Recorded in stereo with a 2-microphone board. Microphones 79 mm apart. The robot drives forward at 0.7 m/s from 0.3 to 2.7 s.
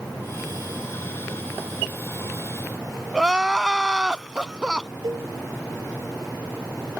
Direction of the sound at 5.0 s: 70° right (ahead or behind).